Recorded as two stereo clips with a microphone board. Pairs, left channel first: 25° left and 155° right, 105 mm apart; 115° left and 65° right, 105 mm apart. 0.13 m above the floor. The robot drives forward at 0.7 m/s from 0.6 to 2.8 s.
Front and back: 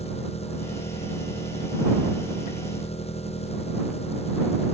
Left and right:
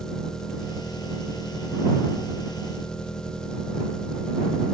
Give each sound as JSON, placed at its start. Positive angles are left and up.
{"t": 0.0, "sound": "an engine running", "azimuth_deg": 30}